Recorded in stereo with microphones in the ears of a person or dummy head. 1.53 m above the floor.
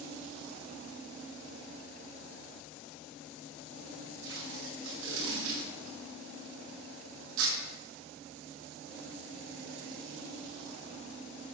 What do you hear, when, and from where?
4.2 s tape being pulled: 80° right, 6.5 m